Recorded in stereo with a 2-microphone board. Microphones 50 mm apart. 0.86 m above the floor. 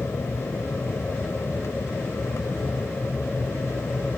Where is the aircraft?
60° left (ahead or behind).